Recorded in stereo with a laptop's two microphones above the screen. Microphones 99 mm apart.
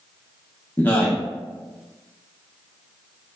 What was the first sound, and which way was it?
A man speaking, 20° left (ahead or behind).